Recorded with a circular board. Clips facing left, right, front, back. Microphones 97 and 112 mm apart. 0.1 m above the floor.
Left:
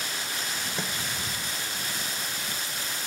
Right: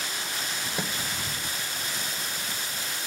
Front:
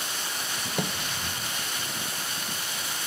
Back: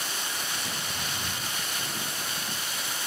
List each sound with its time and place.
0.8 s a microwave: 10° right